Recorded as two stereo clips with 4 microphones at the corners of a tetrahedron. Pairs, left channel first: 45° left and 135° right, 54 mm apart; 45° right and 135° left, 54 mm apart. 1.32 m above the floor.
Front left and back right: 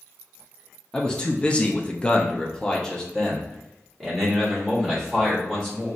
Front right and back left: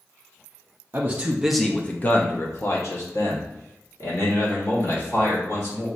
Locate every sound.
0.9 s a man speaking: 110° left, 0.6 m; by 5.9 s 40° right, 3 m